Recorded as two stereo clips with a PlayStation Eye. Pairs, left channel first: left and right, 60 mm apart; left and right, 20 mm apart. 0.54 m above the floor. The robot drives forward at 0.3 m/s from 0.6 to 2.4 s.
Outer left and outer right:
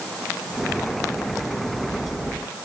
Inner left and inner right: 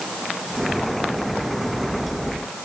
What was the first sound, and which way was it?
Only background noise.